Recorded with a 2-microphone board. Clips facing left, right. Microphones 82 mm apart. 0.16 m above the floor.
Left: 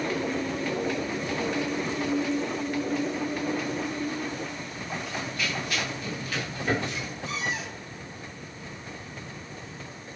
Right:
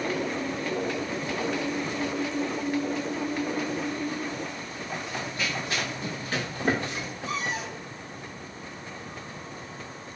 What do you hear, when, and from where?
5.1 s running footsteps: 25° right (ahead or behind), 6 m; by 7.1 s 40° right (ahead or behind), 6.5 m
7.3 s a cupboard door: 40° right (ahead or behind), 5 m